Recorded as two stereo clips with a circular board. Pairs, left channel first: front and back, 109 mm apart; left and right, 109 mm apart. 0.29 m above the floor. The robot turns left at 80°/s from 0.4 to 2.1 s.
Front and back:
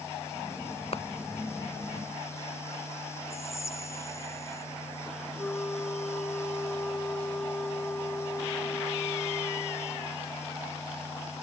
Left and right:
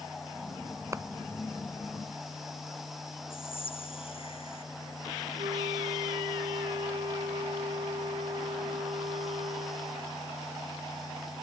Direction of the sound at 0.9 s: 25° right.